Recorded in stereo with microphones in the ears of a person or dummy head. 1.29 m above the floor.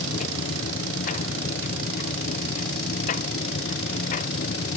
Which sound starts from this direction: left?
A machine running, at 0.0 s.